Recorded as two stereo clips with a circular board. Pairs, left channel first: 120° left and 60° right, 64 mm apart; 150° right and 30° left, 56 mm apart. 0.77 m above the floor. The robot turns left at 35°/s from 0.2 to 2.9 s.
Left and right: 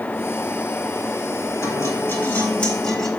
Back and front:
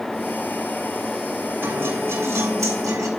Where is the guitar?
80° left, 5 m; by 3.1 s 35° left, 5 m.